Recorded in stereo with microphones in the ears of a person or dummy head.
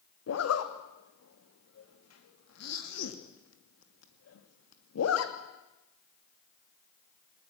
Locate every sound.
0.3 s a zipper: 75° left (ahead or behind), 2.5 m